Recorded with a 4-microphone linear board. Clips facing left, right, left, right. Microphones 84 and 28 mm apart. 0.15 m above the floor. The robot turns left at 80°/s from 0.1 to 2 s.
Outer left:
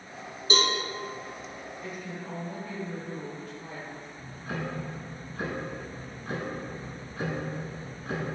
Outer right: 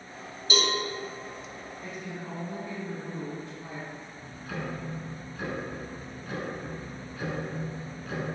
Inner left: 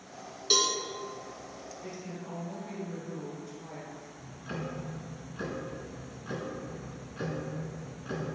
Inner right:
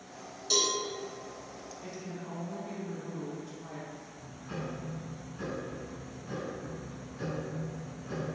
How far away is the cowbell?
About 0.6 m.